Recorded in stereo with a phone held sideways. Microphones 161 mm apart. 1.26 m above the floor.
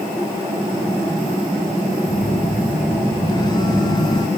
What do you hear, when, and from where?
2.1 s a phone buzzing: 25° left (ahead or behind)